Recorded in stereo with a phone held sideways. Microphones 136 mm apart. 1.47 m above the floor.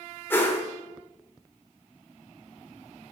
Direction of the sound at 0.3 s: 15° left (ahead or behind).